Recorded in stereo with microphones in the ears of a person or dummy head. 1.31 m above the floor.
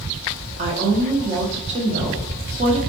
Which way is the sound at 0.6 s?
35° right (ahead or behind).